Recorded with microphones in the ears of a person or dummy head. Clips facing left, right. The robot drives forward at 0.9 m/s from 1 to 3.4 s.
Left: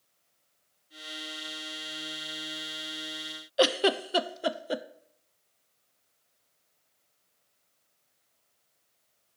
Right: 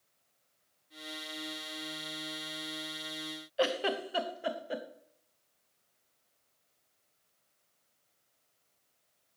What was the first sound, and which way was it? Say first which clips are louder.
A giggle: left 6 dB; 55° left (ahead or behind).